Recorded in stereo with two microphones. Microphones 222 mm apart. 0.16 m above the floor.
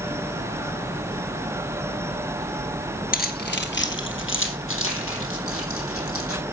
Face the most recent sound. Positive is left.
turn(degrees=75)  # may be behind; listen again after turning